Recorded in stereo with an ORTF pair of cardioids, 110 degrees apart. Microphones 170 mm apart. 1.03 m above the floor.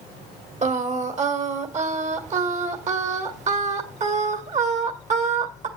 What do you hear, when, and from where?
0.6 s singing: 45° right, 1.6 m